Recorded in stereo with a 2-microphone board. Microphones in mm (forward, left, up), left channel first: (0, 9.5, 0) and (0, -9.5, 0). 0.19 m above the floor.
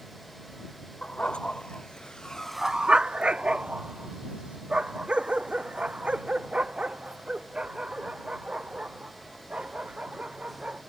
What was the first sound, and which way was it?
A dog barking, 75° left (ahead or behind).